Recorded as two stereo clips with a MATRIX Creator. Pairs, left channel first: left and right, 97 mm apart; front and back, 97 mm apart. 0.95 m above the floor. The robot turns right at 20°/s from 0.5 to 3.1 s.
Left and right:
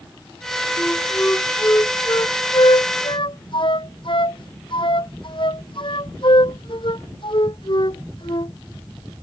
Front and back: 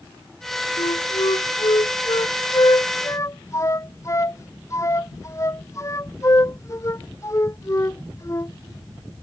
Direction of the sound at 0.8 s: 10° left.